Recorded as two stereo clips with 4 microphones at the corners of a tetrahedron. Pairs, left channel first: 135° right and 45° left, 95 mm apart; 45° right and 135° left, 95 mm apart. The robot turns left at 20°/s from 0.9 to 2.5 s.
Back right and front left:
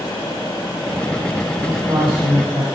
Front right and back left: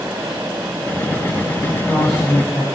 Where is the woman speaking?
10° left, 6 m; by 2.6 s 10° right, 6 m.